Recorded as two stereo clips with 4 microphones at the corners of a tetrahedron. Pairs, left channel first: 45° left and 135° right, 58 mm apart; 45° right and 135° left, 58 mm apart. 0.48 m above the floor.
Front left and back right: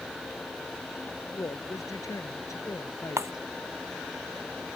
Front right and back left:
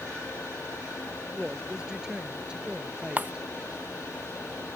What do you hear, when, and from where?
1.3 s a woman speaking: 55° left; by 3.5 s 60° left
3.2 s breaking glass: 165° right